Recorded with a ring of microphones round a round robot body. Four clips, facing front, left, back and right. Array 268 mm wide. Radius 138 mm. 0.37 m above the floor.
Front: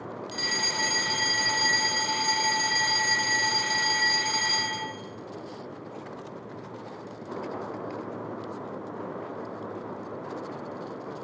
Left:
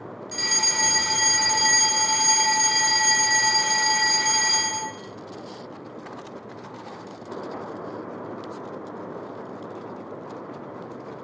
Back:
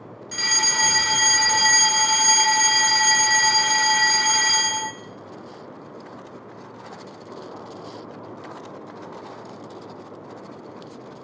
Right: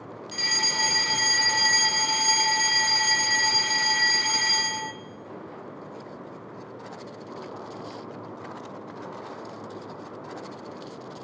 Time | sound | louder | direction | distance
0.3 | a fire alarm | left 1 dB, back 7 dB | 170° left | 2.0 m